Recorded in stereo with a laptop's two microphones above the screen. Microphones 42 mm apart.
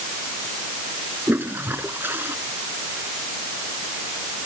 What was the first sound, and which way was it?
A toilet flushing, 55° right (ahead or behind).